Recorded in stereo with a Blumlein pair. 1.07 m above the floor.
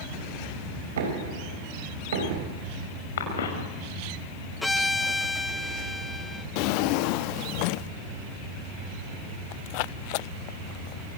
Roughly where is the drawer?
Ahead left.